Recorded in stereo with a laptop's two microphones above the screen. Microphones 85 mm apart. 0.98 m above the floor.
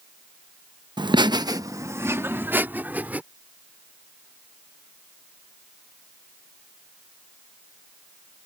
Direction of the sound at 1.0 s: 60° right (ahead or behind).